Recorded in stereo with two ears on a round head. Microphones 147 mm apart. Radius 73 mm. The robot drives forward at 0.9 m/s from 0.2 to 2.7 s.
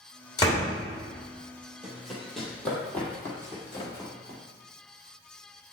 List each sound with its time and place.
0.4 s a door slam: 25° left (ahead or behind), 2.5 m
1.8 s running footsteps: 5° right (ahead or behind), 1.9 m; by 4.4 s 25° left (ahead or behind), 2.5 m
3.7 s a squeak: 35° left (ahead or behind), 1.1 m